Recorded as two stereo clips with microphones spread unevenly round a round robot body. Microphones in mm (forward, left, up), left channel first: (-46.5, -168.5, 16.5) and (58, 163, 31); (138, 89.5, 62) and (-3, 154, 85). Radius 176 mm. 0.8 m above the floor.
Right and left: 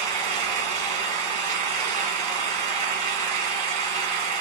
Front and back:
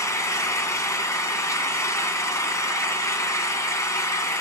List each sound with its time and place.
0.0 s an engine running: 50° left, 2.5 m